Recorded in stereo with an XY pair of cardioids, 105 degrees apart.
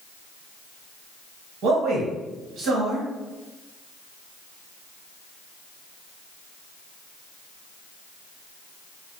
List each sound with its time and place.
1.6 s a man speaking: 70° right, 1.1 m